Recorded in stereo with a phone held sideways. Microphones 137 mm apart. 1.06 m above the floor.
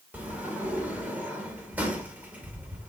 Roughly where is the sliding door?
Centre.